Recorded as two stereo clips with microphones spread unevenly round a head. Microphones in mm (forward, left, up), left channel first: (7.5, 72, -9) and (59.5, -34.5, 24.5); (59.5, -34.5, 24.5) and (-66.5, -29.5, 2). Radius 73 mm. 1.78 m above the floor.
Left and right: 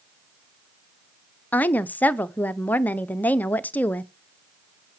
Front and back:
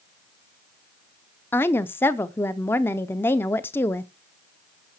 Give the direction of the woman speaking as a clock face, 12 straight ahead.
11 o'clock.